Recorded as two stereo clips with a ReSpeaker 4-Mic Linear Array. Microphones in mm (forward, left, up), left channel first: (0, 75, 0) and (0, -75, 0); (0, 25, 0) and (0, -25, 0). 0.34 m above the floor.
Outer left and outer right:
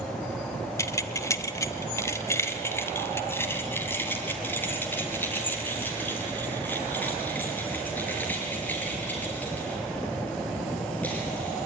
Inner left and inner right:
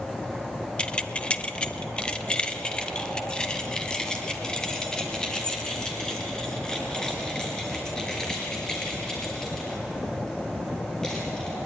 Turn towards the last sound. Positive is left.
turn(degrees=10)  # may be behind; listen again after turning